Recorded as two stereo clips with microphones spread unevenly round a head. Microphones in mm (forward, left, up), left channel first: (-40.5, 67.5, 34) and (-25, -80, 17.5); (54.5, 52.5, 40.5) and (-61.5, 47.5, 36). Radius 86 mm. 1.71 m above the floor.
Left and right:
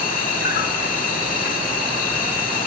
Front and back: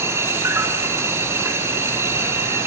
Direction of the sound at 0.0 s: 115° left.